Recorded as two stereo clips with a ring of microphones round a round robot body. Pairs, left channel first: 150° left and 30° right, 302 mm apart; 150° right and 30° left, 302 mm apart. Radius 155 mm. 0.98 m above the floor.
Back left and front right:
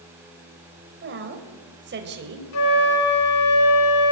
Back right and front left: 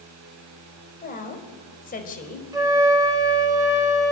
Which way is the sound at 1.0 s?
85° right.